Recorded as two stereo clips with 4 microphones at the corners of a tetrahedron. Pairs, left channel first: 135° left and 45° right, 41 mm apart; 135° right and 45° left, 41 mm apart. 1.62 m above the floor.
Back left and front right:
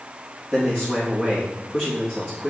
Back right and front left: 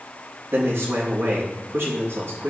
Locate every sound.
0.5 s a man speaking: 70° left, 3.5 m